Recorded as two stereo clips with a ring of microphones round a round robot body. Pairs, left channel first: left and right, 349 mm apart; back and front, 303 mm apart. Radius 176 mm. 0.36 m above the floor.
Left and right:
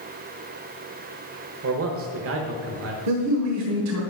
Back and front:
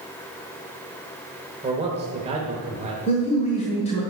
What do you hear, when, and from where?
1.6 s a man speaking: 60° right, 1.0 m
3.1 s a man speaking: 115° right, 1.3 m